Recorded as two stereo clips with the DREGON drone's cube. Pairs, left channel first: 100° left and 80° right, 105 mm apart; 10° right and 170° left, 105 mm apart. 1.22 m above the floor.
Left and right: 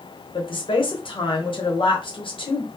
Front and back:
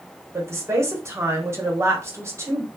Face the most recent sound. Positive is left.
turn(degrees=110)